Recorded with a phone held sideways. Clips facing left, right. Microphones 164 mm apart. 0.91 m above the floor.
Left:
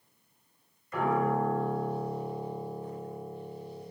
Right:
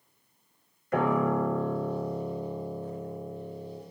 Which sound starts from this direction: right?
A piano, at 0.9 s.